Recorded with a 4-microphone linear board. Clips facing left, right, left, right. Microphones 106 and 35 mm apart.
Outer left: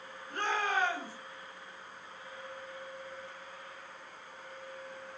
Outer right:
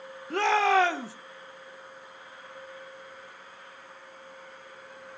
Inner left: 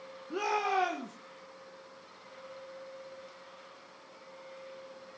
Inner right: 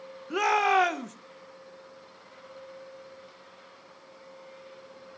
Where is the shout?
80° right, 1.7 m.